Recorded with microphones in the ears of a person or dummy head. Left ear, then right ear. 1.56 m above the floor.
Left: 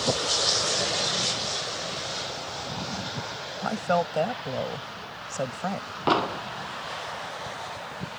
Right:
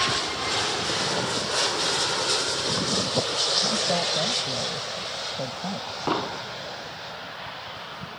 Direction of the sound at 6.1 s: 20° left (ahead or behind).